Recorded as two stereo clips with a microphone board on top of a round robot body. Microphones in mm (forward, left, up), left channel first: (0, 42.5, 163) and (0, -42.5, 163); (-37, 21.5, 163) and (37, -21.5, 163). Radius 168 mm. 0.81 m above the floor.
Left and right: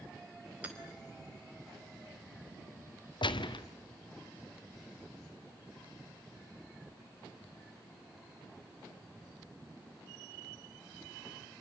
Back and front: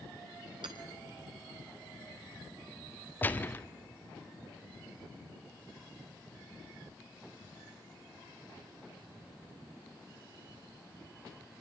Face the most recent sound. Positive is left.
turn(degrees=85)